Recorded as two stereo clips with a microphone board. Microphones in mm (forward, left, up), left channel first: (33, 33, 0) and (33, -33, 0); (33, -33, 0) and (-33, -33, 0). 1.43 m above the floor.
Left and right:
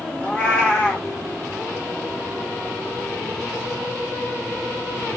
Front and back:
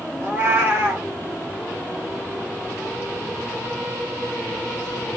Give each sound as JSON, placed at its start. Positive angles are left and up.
{"t": 0.2, "sound": "a cat meowing", "azimuth_deg": 145, "distance_m": 1.3}